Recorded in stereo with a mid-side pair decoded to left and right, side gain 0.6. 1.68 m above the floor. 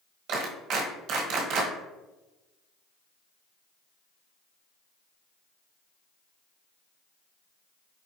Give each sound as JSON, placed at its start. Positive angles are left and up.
{"t": 0.3, "sound": "a clap", "azimuth_deg": -65, "distance_m": 1.4}